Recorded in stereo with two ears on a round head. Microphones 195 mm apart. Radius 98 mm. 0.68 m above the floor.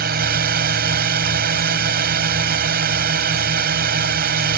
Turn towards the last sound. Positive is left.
turn(degrees=-45)  # may be behind; listen again after turning